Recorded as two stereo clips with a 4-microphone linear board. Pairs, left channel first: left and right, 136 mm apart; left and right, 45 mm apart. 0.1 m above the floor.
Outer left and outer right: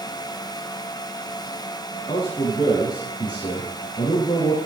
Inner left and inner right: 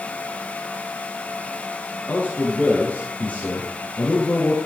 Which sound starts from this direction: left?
A man speaking, at 2.1 s.